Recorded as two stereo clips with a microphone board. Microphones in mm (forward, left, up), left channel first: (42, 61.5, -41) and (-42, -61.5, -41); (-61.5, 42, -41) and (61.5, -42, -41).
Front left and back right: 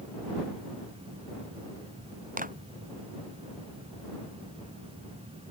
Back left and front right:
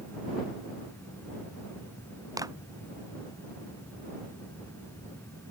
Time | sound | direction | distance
2.4 | a clap | 100° right | ?